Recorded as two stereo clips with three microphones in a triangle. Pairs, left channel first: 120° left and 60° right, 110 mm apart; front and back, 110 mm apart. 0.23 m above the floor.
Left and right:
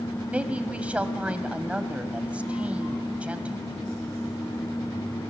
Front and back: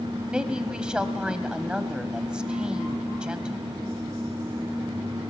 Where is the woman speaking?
115° right, 1.0 m.